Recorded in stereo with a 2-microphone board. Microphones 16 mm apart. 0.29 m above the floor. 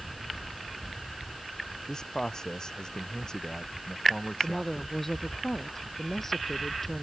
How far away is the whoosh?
I don't hear a whoosh.